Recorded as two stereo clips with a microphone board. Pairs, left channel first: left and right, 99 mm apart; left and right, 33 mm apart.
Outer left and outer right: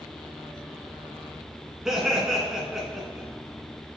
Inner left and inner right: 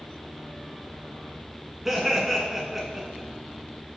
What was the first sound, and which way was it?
Laughter, 5° right (ahead or behind).